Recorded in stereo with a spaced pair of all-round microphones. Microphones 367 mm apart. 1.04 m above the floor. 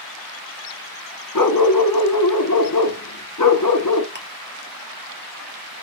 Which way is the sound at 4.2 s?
30° right (ahead or behind).